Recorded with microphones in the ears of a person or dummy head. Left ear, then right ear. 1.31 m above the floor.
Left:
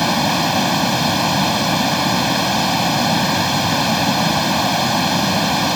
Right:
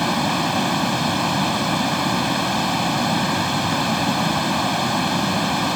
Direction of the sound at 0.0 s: 20° left (ahead or behind).